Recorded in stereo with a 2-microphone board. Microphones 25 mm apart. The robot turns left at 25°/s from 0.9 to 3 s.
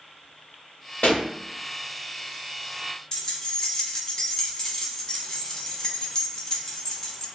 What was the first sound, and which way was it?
A pop, 60° left (ahead or behind).